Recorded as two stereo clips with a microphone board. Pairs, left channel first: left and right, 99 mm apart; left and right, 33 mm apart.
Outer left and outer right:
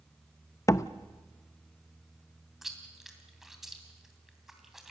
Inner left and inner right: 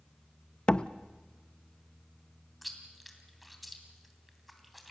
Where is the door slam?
30° left (ahead or behind), 0.5 m.